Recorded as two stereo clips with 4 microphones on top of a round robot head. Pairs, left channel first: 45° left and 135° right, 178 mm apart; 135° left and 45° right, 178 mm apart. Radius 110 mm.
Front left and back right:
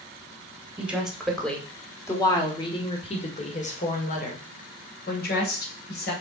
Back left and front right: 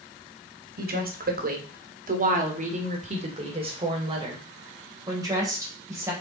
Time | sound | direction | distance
0.8 | a woman speaking | 50° right | 2.0 m